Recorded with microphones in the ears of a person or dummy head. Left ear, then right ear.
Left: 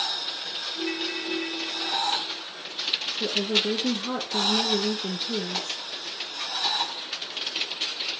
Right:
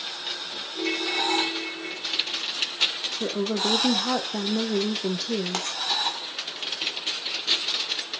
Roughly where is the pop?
Right.